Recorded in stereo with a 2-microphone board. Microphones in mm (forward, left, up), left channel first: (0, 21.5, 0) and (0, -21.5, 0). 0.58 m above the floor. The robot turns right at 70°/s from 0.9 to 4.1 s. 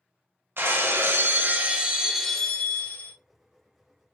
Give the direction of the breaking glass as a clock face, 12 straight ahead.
3 o'clock.